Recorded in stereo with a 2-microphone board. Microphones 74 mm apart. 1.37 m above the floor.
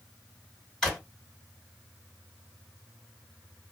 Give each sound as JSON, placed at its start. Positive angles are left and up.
{"t": 0.8, "sound": "a drawer", "side_deg": 10, "distance_m": 1.8}